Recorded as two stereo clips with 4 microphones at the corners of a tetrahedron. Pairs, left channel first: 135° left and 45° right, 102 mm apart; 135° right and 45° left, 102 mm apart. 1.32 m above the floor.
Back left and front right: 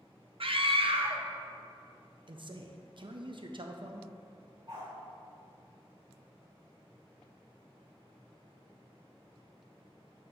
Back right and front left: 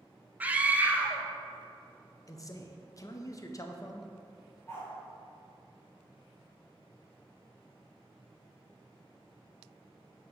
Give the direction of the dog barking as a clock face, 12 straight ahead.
3 o'clock.